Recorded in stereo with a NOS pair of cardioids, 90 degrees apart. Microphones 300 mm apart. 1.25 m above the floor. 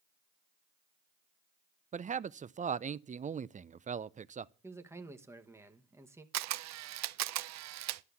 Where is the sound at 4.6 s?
10° right, 1.2 m.